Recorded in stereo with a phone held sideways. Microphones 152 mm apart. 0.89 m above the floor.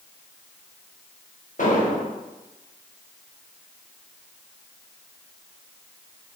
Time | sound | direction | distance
1.6 | an explosion | 60° left (ahead or behind) | 0.7 m